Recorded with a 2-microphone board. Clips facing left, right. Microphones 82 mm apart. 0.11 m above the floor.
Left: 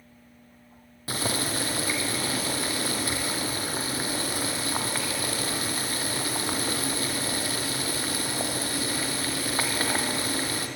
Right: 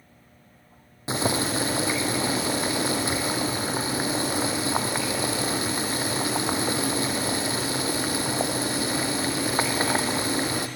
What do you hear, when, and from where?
1.1 s boiling: 20° right (ahead or behind), 2 m